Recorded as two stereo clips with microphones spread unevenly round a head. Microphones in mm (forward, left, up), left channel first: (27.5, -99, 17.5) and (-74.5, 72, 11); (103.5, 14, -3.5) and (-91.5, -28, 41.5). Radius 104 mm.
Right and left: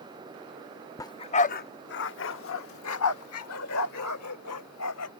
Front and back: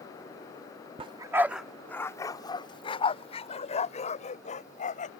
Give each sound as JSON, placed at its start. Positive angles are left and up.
{"t": 1.0, "sound": "a dog barking", "azimuth_deg": -125}